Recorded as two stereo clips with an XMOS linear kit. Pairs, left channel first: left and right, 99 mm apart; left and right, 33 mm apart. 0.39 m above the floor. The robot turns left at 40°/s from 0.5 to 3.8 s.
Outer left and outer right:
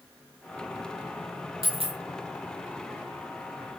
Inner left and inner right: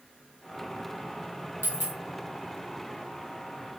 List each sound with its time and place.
1.6 s a dropped coin: 80° right, 1.6 m; by 2.0 s 75° right (ahead or behind), 1.6 m